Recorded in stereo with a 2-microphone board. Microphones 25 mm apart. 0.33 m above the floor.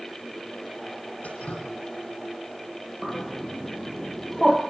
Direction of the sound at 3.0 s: 15° right (ahead or behind).